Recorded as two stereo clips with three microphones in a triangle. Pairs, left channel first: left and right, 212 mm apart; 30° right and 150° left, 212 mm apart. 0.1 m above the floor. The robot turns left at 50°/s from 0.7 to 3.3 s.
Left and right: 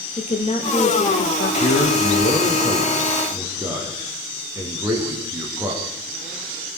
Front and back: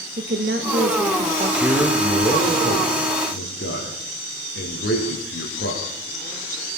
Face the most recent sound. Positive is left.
turn(degrees=-15)